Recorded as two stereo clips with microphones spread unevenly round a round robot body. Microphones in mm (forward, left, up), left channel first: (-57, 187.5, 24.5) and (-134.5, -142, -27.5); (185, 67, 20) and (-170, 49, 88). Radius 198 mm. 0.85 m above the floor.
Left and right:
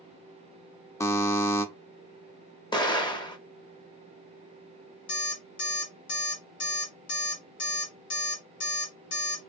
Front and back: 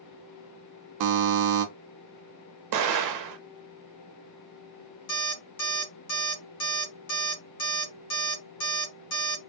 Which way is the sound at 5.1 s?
40° left.